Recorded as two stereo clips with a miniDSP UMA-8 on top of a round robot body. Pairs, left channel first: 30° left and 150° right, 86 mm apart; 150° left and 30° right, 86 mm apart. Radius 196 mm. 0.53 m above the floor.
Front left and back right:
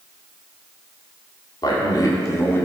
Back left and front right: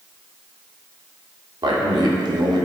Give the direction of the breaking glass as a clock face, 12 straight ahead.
No breaking glass in this recording.